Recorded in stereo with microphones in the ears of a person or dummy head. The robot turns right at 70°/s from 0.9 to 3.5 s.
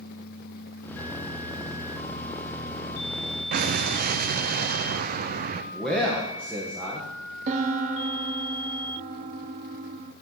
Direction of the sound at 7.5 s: 40° right (ahead or behind).